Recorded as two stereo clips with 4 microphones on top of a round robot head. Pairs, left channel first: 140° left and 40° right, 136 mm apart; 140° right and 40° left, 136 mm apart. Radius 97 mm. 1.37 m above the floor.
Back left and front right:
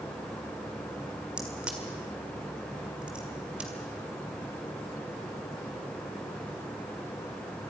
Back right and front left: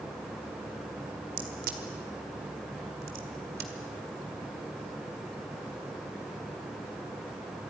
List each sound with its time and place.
1.4 s a crack: 45° left, 1.7 m